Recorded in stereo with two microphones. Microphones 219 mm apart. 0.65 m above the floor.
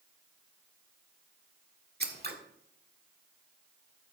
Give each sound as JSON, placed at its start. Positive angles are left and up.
{"t": 2.0, "sound": "scissors", "side_deg": -50, "distance_m": 1.4}